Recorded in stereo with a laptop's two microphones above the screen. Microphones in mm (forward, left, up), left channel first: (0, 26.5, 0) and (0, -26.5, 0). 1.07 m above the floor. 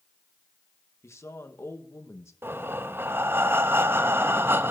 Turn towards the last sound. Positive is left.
turn(degrees=-45)  # may be behind; listen again after turning